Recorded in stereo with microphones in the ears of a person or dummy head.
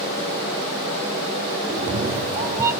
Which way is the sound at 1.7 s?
50° right (ahead or behind).